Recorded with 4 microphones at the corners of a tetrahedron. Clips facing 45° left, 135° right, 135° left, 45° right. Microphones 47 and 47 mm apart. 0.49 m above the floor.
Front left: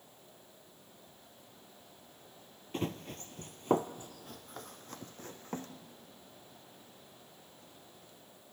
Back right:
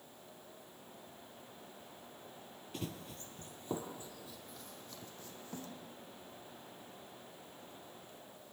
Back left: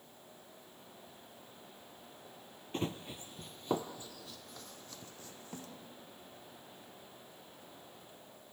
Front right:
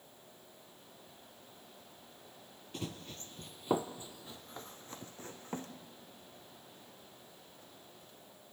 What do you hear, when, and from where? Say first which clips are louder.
2.7 s running footsteps: front left 7 dB, back left 5 dB; 85° left, 0.7 m; by 5.7 s 5° left, 2.0 m